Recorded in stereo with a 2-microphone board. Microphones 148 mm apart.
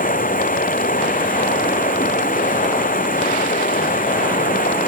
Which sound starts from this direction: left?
Running water, at 0.0 s.